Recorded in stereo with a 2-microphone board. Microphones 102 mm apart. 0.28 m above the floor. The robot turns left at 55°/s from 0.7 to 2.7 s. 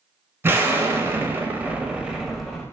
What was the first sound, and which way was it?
An explosion, 25° right (ahead or behind).